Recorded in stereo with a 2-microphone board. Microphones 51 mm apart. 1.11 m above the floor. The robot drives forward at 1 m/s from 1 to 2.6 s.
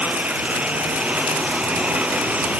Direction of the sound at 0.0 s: 30° right (ahead or behind).